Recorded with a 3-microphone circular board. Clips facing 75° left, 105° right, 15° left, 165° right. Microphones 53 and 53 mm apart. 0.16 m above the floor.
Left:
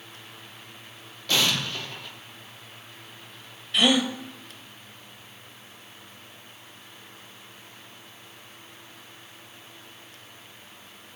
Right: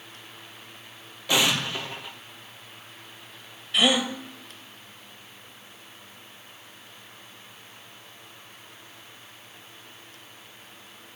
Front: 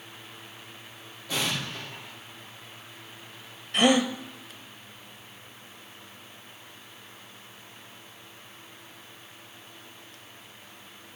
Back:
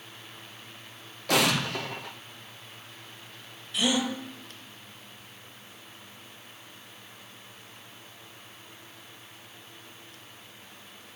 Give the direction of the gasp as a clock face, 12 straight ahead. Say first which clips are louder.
Left 1 dB, front 5 dB; 1 o'clock.